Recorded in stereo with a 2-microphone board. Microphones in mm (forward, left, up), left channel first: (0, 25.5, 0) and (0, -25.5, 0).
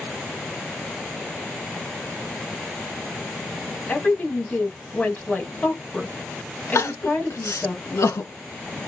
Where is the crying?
70° left (ahead or behind), 0.5 m.